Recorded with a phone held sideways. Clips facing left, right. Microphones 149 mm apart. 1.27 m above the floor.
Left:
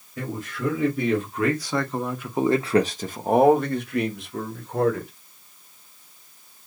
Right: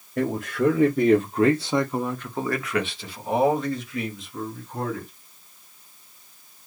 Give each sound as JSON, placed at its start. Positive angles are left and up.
{"t": 0.2, "sound": "a man speaking", "side_deg": -60, "distance_m": 1.1}